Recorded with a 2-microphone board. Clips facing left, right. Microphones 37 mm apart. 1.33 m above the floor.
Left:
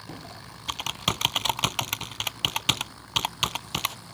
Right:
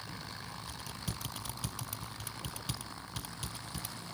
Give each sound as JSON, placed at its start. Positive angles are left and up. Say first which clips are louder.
{"t": 0.1, "sound": "typing on a keyboard", "louder": "left 3 dB", "side_deg": 75}